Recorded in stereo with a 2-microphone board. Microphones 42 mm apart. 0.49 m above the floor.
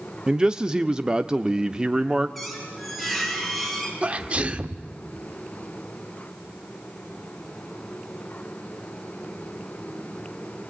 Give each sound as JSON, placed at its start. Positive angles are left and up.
{"t": 0.3, "sound": "a man speaking", "side_deg": -15, "distance_m": 0.7}
{"t": 2.4, "sound": "a squeak", "side_deg": 5, "distance_m": 4.5}
{"t": 4.0, "sound": "a sneeze", "side_deg": -30, "distance_m": 1.3}